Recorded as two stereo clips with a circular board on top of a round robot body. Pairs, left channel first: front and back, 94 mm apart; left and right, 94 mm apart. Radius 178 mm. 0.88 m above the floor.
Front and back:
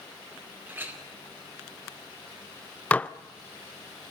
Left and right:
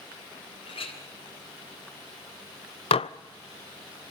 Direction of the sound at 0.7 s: 110° left.